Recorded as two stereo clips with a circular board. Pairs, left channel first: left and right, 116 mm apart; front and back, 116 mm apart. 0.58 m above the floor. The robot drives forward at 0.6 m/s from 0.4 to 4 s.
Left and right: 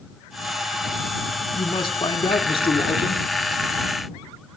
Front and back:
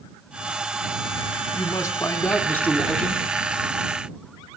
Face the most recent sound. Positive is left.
turn(degrees=110)